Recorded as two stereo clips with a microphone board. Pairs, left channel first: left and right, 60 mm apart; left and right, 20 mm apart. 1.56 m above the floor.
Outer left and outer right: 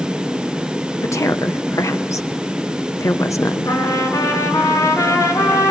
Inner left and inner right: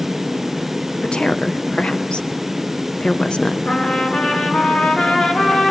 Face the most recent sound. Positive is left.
turn(degrees=60)  # may be behind; listen again after turning